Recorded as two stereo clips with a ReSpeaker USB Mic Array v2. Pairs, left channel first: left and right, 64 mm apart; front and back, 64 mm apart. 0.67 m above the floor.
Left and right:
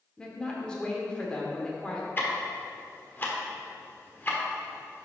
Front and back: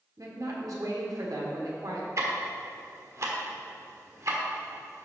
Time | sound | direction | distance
0.2 | a woman speaking | 165° left | 1.5 m
2.2 | ticking | 145° left | 1.2 m